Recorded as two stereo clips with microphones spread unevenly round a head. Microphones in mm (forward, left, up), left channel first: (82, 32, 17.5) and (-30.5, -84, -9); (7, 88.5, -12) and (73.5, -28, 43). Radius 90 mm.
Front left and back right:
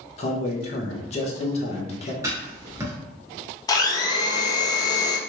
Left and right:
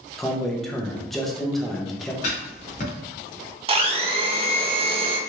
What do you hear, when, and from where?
0.2 s a man speaking: 75° left, 0.7 m
2.2 s writing: 150° left, 0.8 m
3.7 s a blender: 20° right, 0.6 m